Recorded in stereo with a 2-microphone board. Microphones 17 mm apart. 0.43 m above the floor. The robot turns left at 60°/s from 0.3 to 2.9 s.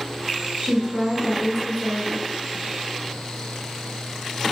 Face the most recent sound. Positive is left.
turn(degrees=130)